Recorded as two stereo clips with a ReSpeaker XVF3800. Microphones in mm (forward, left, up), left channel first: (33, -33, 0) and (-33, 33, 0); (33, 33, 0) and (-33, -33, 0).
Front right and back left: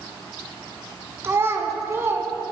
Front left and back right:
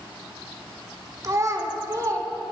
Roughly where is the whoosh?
I don't hear a whoosh.